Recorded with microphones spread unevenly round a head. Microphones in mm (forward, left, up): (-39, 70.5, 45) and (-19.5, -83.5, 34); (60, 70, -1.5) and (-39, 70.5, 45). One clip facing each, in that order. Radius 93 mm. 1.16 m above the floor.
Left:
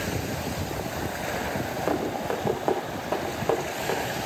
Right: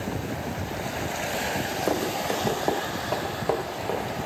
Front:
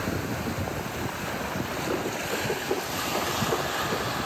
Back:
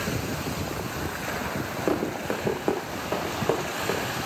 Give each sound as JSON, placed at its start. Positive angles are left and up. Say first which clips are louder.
{"t": 1.9, "sound": "running footsteps", "louder": "even, back 5 dB", "azimuth_deg": -165, "distance_m": 7.5}